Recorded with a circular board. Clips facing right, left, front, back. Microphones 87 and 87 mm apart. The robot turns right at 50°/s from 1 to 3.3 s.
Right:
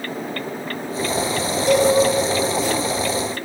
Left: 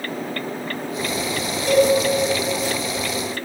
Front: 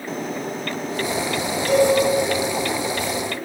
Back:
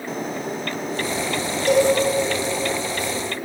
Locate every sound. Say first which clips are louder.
1.7 s a cowbell: even, even; 160° right, 4.5 m; by 1.9 s 150° right, 4.5 m